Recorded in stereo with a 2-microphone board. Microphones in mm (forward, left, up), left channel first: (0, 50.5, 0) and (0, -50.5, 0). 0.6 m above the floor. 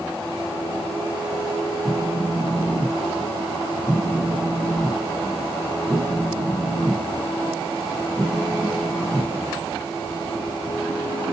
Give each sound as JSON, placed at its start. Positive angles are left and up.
{"t": 1.9, "sound": "a phone buzzing", "side_deg": 5, "distance_m": 0.7}